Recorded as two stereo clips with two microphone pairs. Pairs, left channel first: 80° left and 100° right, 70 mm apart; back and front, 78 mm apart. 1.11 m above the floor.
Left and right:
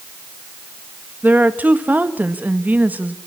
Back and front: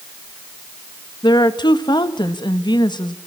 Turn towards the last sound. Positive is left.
turn(degrees=-165)